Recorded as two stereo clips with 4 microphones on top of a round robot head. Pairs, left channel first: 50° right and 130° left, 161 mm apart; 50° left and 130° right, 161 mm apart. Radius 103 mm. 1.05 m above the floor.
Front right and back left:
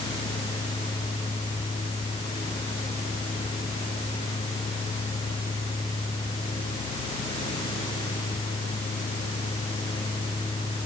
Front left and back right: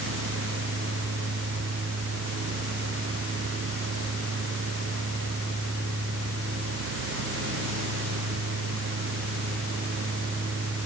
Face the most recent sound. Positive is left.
No sound to turn to.